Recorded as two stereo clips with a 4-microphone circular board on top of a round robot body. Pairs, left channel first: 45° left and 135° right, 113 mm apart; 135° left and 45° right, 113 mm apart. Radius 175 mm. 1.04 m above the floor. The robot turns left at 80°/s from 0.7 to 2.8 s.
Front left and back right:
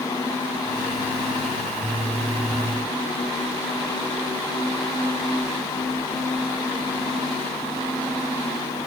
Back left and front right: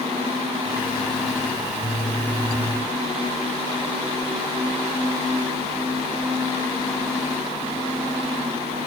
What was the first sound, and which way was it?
Only background noise.